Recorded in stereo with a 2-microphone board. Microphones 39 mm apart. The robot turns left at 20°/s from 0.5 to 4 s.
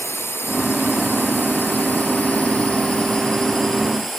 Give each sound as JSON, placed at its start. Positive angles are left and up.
{"t": 0.0, "sound": "a drone", "side_deg": 70}